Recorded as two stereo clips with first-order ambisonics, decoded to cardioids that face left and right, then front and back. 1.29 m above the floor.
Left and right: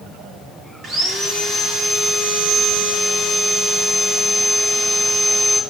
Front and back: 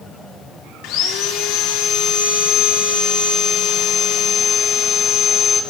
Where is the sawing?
30° right, 3.5 m.